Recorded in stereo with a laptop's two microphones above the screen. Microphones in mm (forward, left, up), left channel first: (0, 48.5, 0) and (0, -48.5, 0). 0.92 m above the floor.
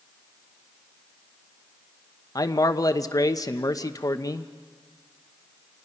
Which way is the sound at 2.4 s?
40° left (ahead or behind).